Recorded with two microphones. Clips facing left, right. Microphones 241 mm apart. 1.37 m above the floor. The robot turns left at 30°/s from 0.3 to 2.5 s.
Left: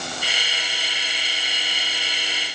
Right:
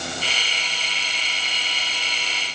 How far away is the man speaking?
I don't hear a man speaking.